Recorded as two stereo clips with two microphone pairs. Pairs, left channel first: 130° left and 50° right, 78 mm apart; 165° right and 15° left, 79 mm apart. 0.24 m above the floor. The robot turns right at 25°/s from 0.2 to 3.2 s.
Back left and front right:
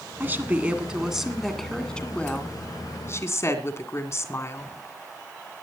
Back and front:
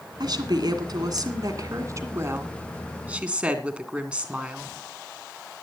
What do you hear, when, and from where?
0.2 s a woman speaking: 15° left, 2 m; by 4.7 s 90° left, 2 m